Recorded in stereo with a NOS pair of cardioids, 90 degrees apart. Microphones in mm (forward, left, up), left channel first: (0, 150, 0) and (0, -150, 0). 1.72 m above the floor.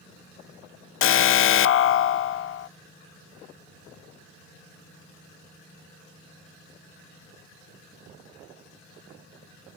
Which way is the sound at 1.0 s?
45° left.